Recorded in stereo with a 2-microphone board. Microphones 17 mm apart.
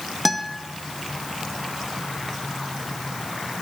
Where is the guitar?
Centre (ahead or behind), 1.4 m.